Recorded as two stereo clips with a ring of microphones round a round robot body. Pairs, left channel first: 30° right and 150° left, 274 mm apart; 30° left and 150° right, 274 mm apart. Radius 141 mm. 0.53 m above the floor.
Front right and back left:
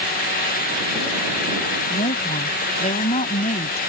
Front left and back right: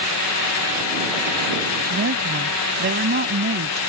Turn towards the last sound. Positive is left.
turn(degrees=-95)